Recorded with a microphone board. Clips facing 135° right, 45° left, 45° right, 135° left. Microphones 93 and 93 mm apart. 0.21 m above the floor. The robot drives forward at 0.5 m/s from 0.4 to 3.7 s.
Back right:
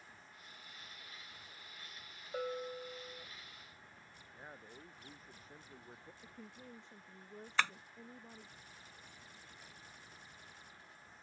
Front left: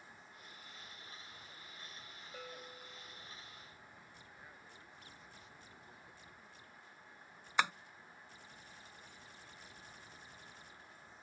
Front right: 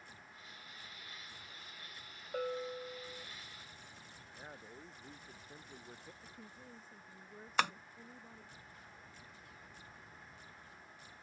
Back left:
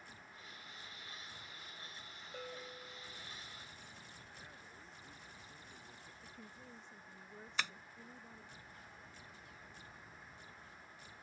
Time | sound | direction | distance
2.3 | a bell | 85° right | ?
4.3 | a man speaking | 85° right | ?
6.2 | a woman speaking | 130° right | ?
7.6 | tapping | 30° right | ?